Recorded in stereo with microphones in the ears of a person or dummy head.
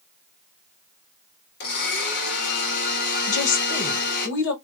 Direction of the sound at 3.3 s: 70° left (ahead or behind).